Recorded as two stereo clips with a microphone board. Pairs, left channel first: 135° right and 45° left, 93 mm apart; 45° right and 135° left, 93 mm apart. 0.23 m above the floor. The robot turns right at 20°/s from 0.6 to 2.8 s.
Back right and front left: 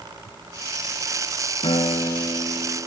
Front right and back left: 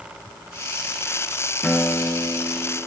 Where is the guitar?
130° right, 0.7 m; by 2.8 s 105° right, 0.7 m.